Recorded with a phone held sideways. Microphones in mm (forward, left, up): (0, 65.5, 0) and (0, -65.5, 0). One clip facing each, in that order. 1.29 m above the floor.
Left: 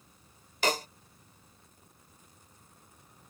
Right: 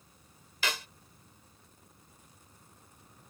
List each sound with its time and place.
0.6 s a snare drum: 45° left (ahead or behind)